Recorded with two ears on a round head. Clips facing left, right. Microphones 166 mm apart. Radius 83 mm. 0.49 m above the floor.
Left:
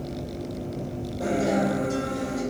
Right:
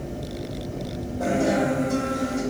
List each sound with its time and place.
1.2 s a guitar: 15° left (ahead or behind), 1.8 m